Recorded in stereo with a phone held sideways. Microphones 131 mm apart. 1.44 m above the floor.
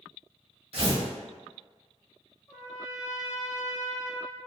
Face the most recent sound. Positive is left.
turn(degrees=30)  # may be behind; listen again after turning